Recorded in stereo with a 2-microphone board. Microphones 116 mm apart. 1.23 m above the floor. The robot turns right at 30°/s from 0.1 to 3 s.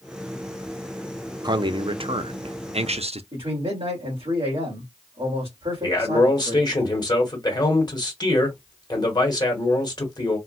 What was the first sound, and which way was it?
A man speaking, 135° right.